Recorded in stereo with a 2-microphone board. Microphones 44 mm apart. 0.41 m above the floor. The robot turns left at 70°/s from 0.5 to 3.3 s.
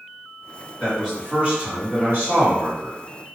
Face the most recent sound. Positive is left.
turn(degrees=-155)